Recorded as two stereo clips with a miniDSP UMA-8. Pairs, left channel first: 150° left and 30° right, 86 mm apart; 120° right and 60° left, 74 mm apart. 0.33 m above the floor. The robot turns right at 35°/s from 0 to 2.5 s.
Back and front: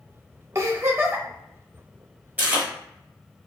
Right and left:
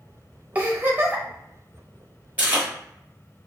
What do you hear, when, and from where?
0.6 s a giggle: 5° left, 0.7 m; by 1.2 s 30° left, 0.7 m
2.4 s chewing: 20° left, 1.1 m